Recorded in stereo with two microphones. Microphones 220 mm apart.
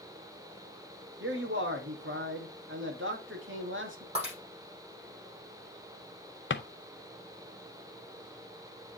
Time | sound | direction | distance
1.2 | a man speaking | 65° right (ahead or behind) | 1.8 m
4.2 | breaking glass | 30° right (ahead or behind) | 6.5 m
6.5 | a drawer | 60° left (ahead or behind) | 0.7 m